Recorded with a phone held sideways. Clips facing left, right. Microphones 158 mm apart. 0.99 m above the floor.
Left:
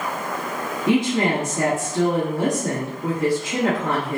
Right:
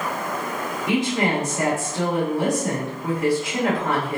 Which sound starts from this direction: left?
A woman speaking, at 0.9 s.